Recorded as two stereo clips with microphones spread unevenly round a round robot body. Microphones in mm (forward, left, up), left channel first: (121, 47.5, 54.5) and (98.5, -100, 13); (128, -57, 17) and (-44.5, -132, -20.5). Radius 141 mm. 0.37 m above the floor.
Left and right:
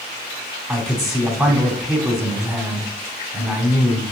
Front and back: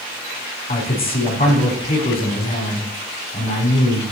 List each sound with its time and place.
0.7 s a man speaking: 20° right, 3.5 m